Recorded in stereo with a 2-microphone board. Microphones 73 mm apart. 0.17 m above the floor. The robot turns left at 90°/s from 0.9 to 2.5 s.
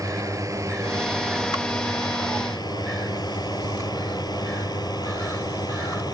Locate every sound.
0.0 s a drone: 50° right (ahead or behind); by 6.2 s 60° left (ahead or behind)